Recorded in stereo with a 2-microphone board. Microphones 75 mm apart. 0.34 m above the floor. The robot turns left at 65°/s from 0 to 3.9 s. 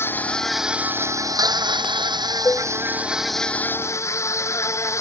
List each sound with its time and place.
0.0 s an insect: 35° left; by 5.0 s 140° left
2.5 s dishes clattering: 40° left (ahead or behind); by 2.7 s 35° left (ahead or behind)